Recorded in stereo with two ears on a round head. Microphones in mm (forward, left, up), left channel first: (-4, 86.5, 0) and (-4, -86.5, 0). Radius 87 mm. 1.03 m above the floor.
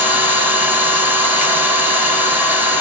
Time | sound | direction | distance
0.0 | an engine running | 10° right (ahead or behind) | 2.5 m